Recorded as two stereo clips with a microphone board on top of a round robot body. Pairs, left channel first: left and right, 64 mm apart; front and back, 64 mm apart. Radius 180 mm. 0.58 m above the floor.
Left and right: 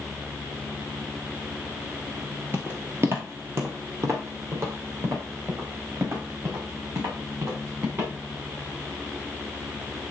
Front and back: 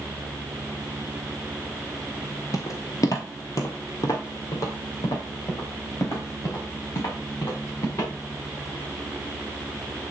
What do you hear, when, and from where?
2.5 s footsteps: 35° right, 0.6 m; by 8.1 s 45° right, 4.5 m